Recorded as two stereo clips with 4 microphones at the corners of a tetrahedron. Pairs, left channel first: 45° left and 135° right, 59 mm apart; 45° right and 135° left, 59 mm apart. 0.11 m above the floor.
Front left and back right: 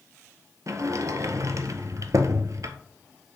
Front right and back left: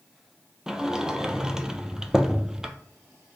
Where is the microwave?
I don't hear a microwave.